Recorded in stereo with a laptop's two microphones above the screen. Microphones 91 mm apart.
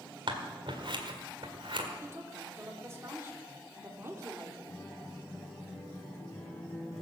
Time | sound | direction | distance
0.3 | scissors | 65° right (ahead or behind) | 1.8 m
2.0 | a woman speaking | 30° right (ahead or behind) | 3 m
4.7 | a guitar | 30° left (ahead or behind) | 5 m